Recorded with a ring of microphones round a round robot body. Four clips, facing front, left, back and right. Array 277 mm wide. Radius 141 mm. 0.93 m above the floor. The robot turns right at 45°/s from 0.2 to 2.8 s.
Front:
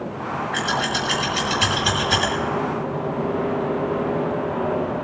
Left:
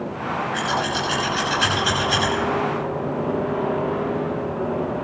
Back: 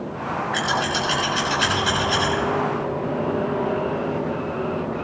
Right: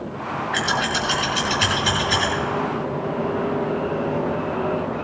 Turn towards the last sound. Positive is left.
turn(degrees=5)